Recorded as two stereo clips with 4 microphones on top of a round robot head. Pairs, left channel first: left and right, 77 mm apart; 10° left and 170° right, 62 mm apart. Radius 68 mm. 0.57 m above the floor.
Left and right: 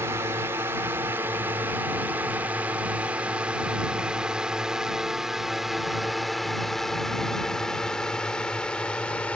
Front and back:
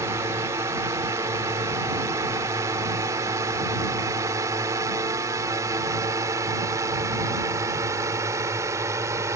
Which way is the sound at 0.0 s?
145° right.